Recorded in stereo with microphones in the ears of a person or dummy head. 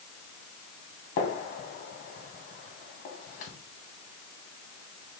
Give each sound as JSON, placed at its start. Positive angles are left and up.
{"t": 1.2, "sound": "a gunshot", "side_deg": 50, "distance_m": 1.5}